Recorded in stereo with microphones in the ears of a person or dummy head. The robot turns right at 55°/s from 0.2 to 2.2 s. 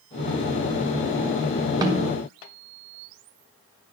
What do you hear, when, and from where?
1.8 s a snare drum: 15° right (ahead or behind), 0.9 m; by 2.1 s 30° right (ahead or behind), 0.9 m